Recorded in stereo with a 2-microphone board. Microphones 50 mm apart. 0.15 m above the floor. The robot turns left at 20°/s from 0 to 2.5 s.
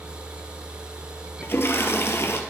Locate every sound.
1.4 s a toilet flushing: 55° left (ahead or behind), 0.8 m; by 2.4 s 70° left (ahead or behind), 0.8 m